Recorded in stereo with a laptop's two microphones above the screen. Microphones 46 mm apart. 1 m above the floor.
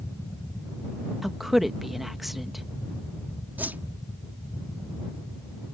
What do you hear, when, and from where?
0.0 s a fan: 80° left
1.2 s a woman speaking: 5° right (ahead or behind)
3.6 s a whoosh: 40° right (ahead or behind)